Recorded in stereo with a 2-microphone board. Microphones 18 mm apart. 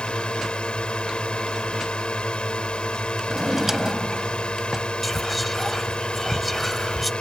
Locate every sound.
0.0 s a drone: 60° left (ahead or behind)
3.3 s a drawer: 10° right (ahead or behind)
5.0 s whispering: 5° left (ahead or behind)